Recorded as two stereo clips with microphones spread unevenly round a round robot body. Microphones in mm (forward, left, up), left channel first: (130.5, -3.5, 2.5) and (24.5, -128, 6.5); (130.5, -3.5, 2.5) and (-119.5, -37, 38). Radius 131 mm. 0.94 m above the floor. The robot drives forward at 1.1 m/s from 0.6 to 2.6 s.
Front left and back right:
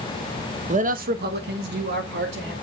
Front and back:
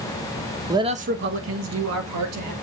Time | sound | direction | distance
0.7 | a man speaking | 90° right | 1.0 m